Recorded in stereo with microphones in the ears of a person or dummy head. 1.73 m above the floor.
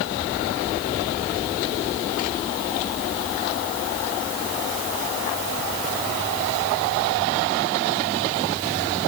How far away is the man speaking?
No man speaking in this recording.